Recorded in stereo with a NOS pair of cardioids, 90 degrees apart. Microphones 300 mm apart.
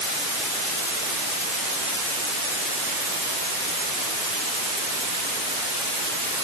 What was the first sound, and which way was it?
Only background noise.